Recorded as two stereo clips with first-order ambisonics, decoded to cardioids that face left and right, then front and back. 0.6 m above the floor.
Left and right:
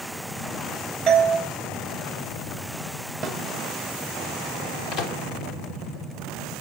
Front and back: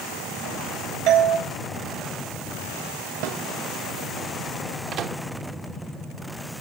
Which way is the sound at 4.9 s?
135° left.